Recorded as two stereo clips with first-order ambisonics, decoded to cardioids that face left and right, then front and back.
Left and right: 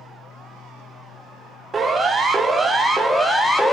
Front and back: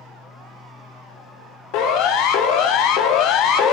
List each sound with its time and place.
1.7 s a siren: 15° right, 2.5 m; by 3.7 s 15° left, 1.7 m